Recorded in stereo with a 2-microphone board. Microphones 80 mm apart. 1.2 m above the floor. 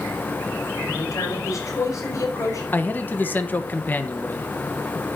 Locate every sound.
0.9 s a man speaking: 45° left (ahead or behind), 5 m
2.7 s a man speaking: 25° left (ahead or behind), 1.2 m